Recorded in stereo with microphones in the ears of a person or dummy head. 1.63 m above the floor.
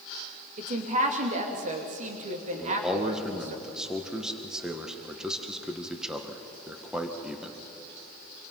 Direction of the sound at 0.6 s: 40° right (ahead or behind).